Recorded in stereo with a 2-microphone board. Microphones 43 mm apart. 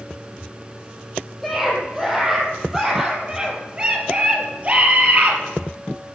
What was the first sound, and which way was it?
A scream, 5° right (ahead or behind).